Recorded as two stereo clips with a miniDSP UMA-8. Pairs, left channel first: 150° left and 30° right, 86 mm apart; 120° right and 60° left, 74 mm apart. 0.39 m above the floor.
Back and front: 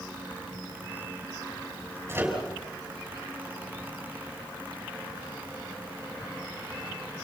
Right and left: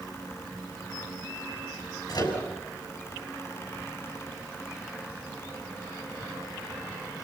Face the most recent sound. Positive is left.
turn(degrees=-95)